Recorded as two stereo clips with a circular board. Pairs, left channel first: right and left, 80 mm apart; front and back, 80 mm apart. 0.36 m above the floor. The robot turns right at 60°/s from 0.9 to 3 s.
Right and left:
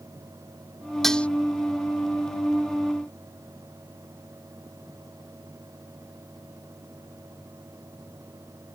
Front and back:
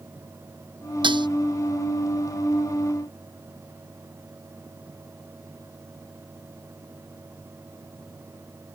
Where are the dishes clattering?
Straight behind; by 1.3 s 165° right.